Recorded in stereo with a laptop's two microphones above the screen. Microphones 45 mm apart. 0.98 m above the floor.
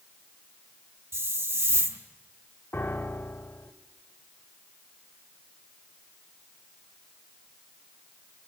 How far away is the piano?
About 0.9 m.